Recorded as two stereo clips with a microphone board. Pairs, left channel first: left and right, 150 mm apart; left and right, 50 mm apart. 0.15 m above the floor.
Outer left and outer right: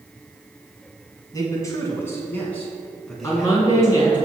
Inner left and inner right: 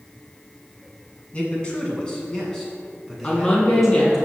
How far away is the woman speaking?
About 1.8 m.